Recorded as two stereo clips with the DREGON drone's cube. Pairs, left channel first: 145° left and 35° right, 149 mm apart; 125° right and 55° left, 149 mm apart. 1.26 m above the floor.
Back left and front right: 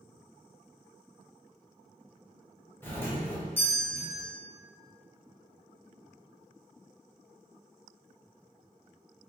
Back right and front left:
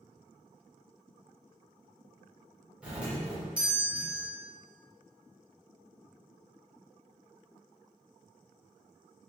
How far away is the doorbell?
About 0.6 m.